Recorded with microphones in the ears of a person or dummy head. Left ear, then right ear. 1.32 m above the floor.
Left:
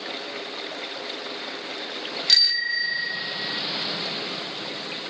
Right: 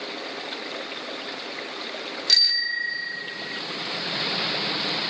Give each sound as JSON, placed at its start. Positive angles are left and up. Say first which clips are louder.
{"t": 2.3, "sound": "a bicycle bell", "louder": "left 1 dB", "side_deg": 15}